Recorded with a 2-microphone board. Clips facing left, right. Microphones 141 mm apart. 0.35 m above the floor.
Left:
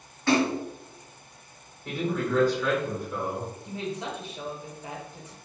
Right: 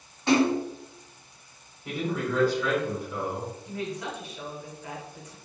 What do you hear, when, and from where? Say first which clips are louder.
0.3 s a splash: right 2 dB; 25° right (ahead or behind), 1.9 m
1.9 s a man speaking: left 1 dB; 5° right (ahead or behind), 1.5 m
3.6 s a woman speaking: left 1 dB; 25° left (ahead or behind), 0.9 m